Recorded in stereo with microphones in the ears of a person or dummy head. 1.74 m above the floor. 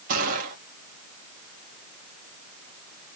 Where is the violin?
I don't hear a violin.